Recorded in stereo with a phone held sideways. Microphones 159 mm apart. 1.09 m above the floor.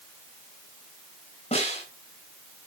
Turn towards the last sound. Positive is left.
turn(degrees=40)  # may be behind; listen again after turning